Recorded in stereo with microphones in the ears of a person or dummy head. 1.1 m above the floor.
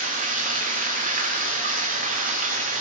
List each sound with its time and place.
0.0 s running water: 40° right (ahead or behind), 0.8 m